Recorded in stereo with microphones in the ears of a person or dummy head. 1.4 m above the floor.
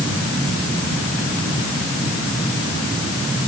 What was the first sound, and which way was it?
Only background noise.